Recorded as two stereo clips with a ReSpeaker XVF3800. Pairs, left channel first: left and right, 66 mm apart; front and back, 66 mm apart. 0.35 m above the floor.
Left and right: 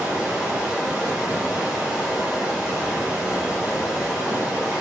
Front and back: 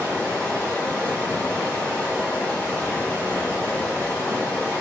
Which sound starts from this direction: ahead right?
Running water, at 0.0 s.